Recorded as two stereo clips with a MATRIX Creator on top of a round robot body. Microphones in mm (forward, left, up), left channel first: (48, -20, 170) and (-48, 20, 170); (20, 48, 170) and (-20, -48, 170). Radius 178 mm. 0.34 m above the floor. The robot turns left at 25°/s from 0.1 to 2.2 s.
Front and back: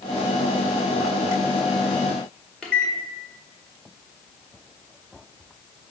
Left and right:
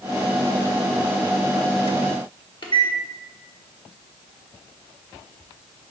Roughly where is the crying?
No crying in this recording.